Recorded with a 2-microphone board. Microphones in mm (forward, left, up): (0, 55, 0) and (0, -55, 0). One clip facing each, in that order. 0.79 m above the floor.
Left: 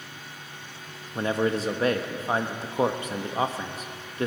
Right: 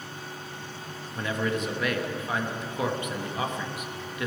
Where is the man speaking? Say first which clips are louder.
Left 4 dB; 35° left (ahead or behind), 0.8 m.